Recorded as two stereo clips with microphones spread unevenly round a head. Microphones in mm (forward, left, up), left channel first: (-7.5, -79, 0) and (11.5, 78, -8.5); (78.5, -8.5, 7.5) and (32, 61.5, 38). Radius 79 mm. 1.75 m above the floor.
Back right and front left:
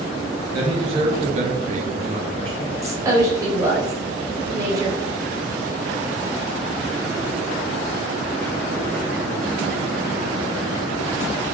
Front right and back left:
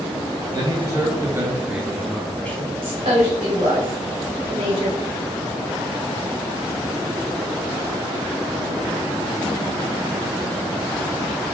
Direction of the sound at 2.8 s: 155° left.